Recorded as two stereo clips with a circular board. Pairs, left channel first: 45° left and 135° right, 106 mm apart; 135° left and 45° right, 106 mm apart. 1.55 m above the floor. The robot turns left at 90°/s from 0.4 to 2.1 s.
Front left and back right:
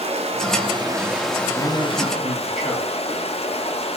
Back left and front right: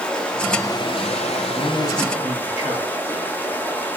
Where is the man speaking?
175° right, 3 m; by 3.3 s 135° left, 3 m.